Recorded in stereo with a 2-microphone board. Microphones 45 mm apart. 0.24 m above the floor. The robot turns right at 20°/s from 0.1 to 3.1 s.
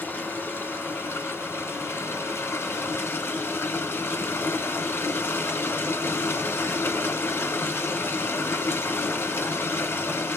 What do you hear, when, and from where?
0.0 s running water: 55° left, 1.5 m; by 10.4 s 115° left, 1.5 m